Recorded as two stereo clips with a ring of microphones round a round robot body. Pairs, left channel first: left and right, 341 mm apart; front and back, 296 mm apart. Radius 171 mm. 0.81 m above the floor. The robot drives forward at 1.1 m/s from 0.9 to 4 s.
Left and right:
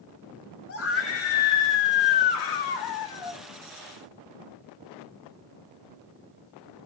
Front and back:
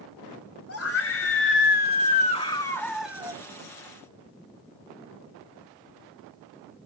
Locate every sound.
0.7 s a scream: 40° left, 3 m; by 3.4 s 105° left, 2 m